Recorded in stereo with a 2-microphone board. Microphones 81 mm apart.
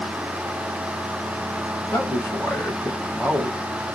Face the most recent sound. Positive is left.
turn(degrees=25)  # may be behind; listen again after turning